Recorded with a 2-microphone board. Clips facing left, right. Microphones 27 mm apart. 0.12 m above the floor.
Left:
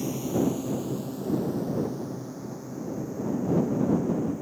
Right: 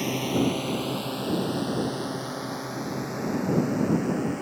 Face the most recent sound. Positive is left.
turn(degrees=-80)